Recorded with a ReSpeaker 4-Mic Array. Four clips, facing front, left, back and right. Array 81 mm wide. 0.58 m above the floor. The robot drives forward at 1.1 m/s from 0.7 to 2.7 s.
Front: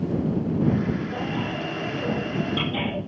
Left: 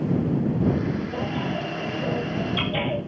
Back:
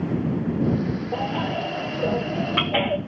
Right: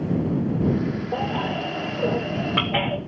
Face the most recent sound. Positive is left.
turn(degrees=-130)